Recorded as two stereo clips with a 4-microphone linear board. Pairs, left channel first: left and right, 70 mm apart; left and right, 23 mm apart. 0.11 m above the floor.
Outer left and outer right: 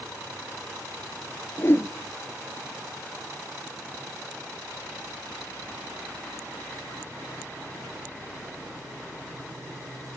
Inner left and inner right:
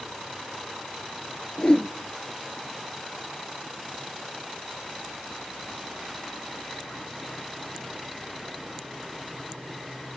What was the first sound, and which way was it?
A whoosh, 35° left (ahead or behind).